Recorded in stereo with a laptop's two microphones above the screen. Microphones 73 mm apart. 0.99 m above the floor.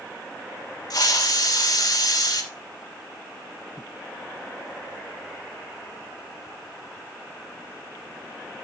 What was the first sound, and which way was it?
A hiss, 60° left (ahead or behind).